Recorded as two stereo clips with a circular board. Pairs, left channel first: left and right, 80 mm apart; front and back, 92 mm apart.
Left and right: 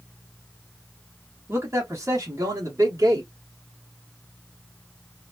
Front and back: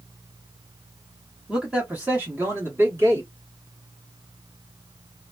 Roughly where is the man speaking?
Right.